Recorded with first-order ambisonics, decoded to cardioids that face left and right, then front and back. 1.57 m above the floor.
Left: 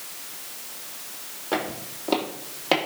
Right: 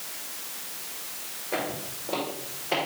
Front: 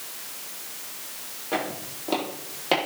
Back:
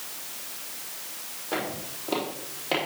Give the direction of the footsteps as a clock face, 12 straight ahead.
9 o'clock.